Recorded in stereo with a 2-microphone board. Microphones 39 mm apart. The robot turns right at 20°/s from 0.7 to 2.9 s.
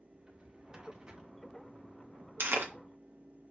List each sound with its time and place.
0.1 s a drawer: 20° right (ahead or behind), 1.1 m; by 1.2 s 25° right (ahead or behind), 1.1 m
2.4 s chewing: 75° right (ahead or behind), 0.9 m; by 2.7 s 80° right, 0.9 m